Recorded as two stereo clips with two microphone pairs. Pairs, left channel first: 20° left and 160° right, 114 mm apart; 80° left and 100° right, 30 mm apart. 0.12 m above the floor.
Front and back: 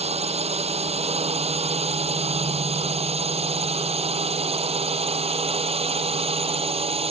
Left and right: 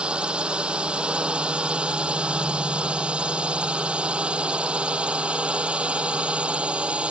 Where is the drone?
150° right; by 7.1 s 145° right.